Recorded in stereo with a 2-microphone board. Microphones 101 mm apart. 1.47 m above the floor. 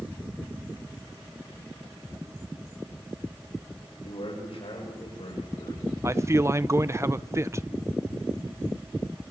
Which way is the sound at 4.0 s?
65° left (ahead or behind).